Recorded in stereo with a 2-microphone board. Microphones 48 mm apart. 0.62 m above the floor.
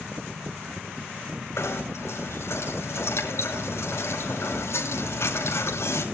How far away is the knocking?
About 5 m.